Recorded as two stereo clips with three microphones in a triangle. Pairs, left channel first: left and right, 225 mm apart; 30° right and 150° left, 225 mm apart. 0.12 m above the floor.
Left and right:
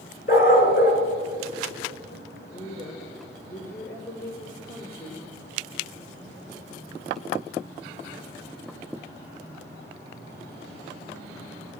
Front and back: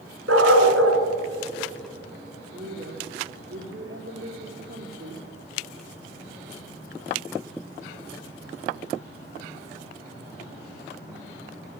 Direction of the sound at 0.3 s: 140° left.